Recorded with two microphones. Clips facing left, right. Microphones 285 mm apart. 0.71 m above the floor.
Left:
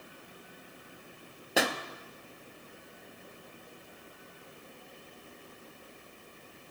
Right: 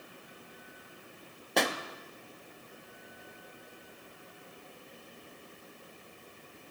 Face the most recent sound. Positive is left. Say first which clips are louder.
# left 1 dB
turn(degrees=5)  # may be behind; listen again after turning